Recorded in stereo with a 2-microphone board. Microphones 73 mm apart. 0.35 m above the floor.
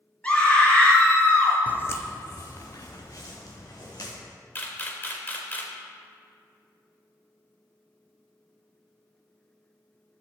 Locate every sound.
0.2 s a scream: 20° left (ahead or behind), 3.5 m
1.7 s footsteps: 25° left (ahead or behind), 0.6 m; by 4.1 s 60° left (ahead or behind), 3.5 m
4.5 s a camera shutter: 30° left (ahead or behind), 1.3 m